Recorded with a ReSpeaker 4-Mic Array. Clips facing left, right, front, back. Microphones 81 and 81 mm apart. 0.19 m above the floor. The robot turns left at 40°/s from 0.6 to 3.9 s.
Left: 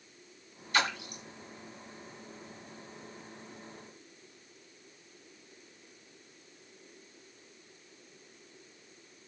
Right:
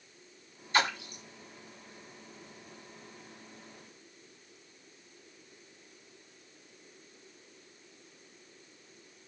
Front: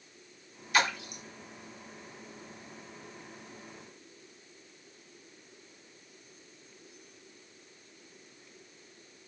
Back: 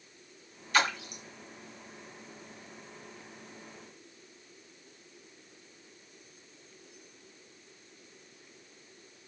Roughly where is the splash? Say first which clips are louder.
Right 2 dB, even; ahead right.